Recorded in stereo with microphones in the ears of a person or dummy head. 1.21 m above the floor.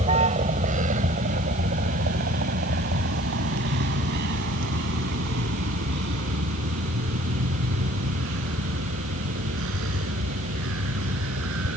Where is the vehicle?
30° right (ahead or behind); by 11.8 s 70° right (ahead or behind).